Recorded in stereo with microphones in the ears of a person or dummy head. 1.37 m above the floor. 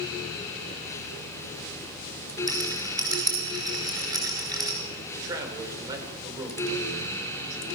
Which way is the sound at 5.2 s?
15° right (ahead or behind).